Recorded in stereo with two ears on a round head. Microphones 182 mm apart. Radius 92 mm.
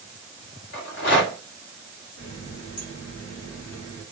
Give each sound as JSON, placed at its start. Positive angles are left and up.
{"t": 0.7, "sound": "a rattle", "side_deg": 65, "distance_m": 1.3}
{"t": 2.2, "sound": "a running tap", "side_deg": 60, "distance_m": 1.6}